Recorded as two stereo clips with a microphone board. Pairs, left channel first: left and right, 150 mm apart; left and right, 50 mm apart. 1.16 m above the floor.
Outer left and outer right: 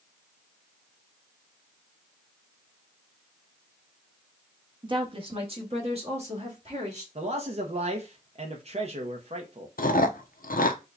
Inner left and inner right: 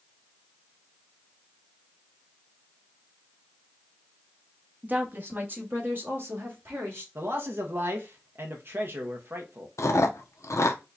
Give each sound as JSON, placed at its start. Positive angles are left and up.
{"t": 4.8, "sound": "a woman speaking", "side_deg": -30, "distance_m": 0.9}
{"t": 7.2, "sound": "a man speaking", "side_deg": -45, "distance_m": 0.7}
{"t": 9.8, "sound": "chewing", "side_deg": 70, "distance_m": 0.6}